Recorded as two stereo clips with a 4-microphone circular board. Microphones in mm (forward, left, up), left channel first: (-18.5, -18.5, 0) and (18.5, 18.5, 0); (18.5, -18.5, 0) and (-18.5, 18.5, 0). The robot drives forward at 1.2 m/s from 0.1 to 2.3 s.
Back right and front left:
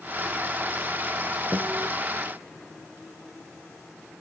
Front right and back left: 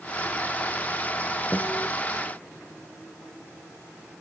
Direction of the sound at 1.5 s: 40° left.